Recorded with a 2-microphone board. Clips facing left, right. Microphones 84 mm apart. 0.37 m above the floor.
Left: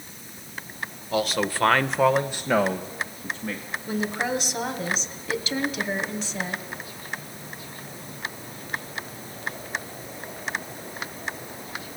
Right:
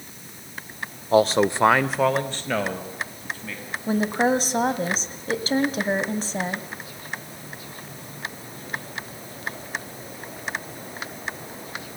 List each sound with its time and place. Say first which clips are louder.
1.1 s a man speaking: right 7 dB; 35° right (ahead or behind), 1.0 m; by 3.6 s 25° left (ahead or behind), 2.5 m
3.9 s a woman speaking: right 6 dB; 40° right (ahead or behind), 2 m